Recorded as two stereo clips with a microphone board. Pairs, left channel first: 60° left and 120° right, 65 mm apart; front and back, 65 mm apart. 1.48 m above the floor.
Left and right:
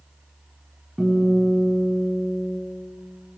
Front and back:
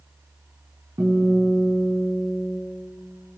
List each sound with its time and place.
1.0 s a guitar: 150° left, 6 m